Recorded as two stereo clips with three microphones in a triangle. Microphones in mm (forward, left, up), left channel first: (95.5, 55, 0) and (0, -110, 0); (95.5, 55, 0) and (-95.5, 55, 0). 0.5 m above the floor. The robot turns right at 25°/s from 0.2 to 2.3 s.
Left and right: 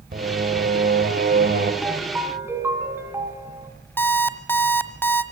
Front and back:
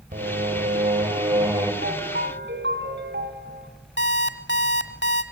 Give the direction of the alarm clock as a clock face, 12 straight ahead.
1 o'clock.